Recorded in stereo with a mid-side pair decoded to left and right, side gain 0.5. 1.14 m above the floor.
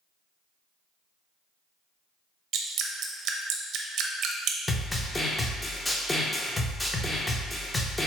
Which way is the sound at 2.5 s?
65° right.